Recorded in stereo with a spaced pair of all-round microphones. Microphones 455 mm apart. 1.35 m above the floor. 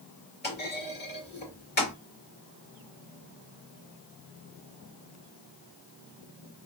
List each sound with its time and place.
0.4 s a clunk: 20° left (ahead or behind), 2.0 m